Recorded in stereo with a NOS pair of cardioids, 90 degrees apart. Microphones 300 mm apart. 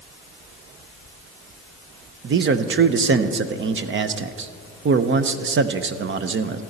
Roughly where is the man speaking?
Ahead right.